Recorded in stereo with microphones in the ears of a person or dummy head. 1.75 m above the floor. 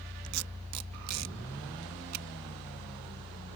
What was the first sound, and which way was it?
Tape being pulled, 75° right (ahead or behind).